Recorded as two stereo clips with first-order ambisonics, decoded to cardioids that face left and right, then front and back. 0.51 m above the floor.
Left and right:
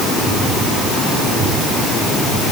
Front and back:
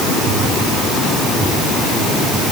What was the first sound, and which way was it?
Only background noise.